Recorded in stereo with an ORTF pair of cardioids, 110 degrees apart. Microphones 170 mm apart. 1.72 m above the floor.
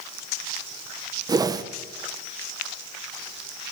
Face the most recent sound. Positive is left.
turn(degrees=-20)